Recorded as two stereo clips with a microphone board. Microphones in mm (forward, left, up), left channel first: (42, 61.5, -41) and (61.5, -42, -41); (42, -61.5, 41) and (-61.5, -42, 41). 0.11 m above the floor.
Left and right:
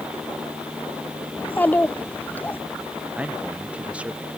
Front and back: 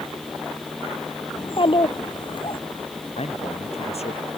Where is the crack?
No crack in this recording.